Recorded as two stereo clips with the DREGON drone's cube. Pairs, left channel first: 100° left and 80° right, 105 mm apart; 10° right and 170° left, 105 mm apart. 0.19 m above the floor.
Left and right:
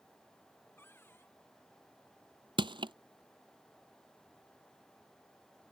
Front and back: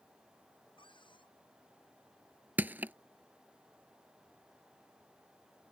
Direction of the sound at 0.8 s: 30° left.